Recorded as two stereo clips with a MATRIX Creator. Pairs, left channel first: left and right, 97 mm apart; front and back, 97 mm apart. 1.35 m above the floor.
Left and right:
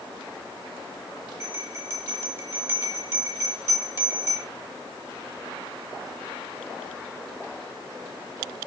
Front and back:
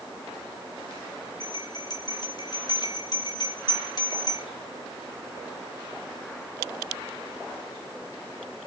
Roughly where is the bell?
Ahead right.